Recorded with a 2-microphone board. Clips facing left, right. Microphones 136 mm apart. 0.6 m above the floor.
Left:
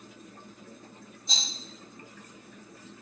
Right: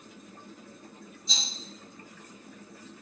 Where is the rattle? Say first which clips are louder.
Left 1 dB; 60° left (ahead or behind), 1.3 m.